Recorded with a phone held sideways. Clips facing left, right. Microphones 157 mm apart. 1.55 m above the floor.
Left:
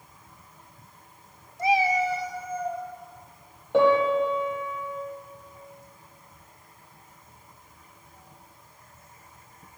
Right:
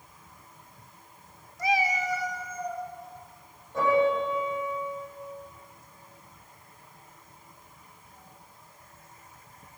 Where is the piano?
70° left (ahead or behind), 7 m.